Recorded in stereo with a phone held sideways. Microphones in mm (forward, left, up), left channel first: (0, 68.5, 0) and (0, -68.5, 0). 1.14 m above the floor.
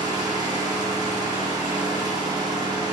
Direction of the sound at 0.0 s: 30° right (ahead or behind).